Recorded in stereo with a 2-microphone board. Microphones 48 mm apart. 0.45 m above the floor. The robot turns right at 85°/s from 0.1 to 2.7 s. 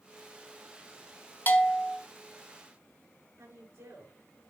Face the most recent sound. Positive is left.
turn(degrees=-75)  # may be behind; listen again after turning